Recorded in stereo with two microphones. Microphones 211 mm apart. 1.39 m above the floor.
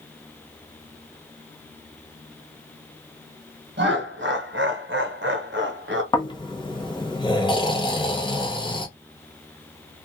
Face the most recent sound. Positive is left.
turn(degrees=20)  # may be behind; listen again after turning